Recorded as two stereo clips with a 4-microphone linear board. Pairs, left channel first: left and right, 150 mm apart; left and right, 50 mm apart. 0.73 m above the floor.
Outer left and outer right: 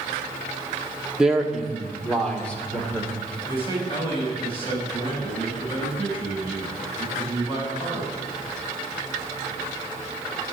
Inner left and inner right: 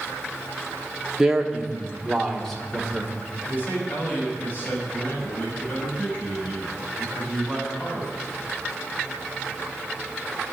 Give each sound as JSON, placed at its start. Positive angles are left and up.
{"t": 1.2, "sound": "a man speaking", "side_deg": -5, "distance_m": 1.3}
{"t": 3.5, "sound": "a man speaking", "side_deg": 35, "distance_m": 5.5}